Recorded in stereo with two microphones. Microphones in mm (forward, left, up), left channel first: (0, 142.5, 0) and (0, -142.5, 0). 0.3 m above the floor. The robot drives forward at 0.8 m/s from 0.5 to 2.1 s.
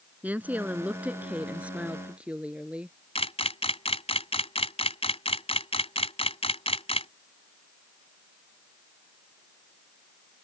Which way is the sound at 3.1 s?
20° left (ahead or behind).